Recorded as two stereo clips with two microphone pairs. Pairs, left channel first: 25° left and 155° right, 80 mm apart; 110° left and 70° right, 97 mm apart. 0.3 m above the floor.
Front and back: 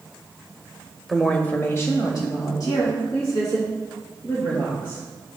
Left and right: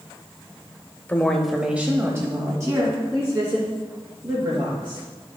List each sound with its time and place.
1.1 s a woman speaking: 115° left, 1.0 m; by 5.4 s 20° right, 5.5 m